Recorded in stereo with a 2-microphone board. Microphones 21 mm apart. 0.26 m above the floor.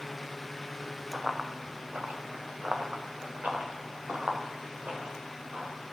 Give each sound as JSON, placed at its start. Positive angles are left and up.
{"t": 1.1, "sound": "running footsteps", "side_deg": -25, "distance_m": 1.5}